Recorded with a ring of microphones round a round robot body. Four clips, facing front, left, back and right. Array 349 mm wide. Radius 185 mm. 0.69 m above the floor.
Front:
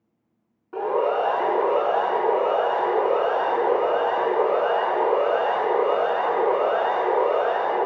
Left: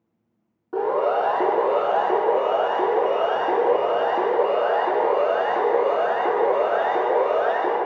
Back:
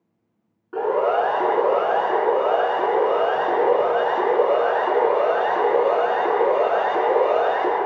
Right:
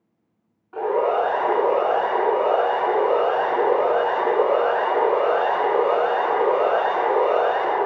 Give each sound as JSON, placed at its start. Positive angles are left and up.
{"t": 0.7, "sound": "a siren", "azimuth_deg": 110, "distance_m": 9.5}